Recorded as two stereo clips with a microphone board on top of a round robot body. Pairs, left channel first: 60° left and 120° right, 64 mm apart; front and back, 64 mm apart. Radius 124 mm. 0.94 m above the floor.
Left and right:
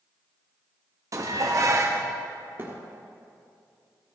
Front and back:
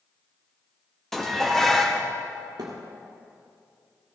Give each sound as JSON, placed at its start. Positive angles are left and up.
{"t": 1.1, "sound": "dishes clattering", "azimuth_deg": -85, "distance_m": 1.2}
{"t": 2.6, "sound": "a thud", "azimuth_deg": -175, "distance_m": 1.5}